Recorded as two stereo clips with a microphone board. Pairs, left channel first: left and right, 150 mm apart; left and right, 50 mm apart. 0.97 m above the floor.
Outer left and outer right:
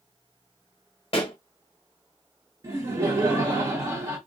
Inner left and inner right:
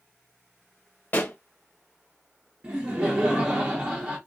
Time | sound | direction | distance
1.1 | a pop | 40° left (ahead or behind) | 0.8 m
2.6 | laughter | 30° right (ahead or behind) | 1.0 m